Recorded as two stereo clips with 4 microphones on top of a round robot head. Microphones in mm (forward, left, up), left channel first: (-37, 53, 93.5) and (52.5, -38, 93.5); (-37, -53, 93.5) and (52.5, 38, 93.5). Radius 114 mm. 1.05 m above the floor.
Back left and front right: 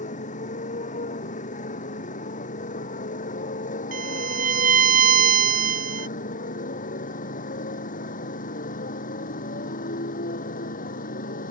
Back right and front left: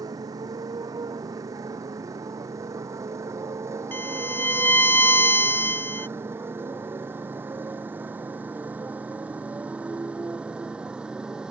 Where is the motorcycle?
110° left; by 11.5 s 130° left.